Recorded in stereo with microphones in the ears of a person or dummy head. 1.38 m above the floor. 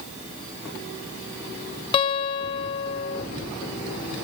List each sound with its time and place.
1.9 s a guitar: 30° left (ahead or behind), 1.5 m